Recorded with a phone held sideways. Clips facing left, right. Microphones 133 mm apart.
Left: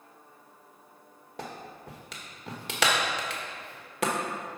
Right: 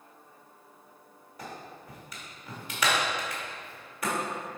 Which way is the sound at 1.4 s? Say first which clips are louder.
Left 2 dB; 75° left (ahead or behind).